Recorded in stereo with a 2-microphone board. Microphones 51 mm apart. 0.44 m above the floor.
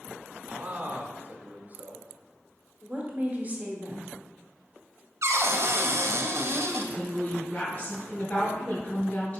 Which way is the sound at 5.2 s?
75° right (ahead or behind).